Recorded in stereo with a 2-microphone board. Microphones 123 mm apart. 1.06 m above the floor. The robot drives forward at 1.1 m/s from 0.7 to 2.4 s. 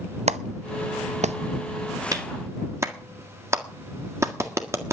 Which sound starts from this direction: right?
A clap, at 0.3 s.